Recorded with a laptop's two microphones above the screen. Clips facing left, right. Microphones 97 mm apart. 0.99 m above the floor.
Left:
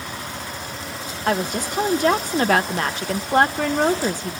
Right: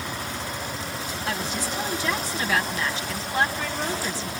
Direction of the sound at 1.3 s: 55° left (ahead or behind).